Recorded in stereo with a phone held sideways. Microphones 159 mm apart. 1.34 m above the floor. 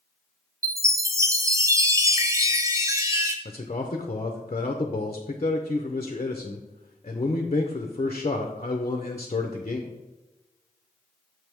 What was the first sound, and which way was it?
A chime, 20° right (ahead or behind).